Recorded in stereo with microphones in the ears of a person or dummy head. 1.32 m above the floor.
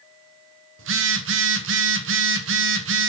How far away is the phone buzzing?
About 0.9 m.